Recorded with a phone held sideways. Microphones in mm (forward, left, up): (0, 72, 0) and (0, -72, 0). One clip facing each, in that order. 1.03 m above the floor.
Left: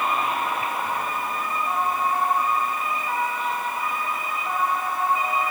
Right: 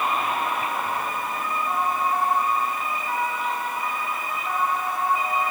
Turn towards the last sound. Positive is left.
No sound to turn to.